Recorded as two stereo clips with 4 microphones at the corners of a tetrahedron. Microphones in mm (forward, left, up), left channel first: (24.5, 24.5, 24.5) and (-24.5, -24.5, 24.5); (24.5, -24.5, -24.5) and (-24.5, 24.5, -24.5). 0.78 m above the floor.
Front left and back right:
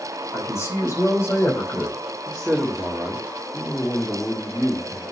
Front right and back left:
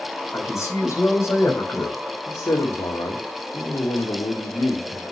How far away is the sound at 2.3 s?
About 2.0 m.